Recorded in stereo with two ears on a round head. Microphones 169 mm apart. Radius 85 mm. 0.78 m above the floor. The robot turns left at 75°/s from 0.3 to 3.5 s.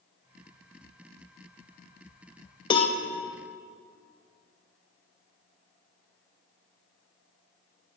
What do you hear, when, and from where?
2.7 s a cowbell: 25° left (ahead or behind), 0.5 m; by 3.0 s 40° left (ahead or behind), 0.5 m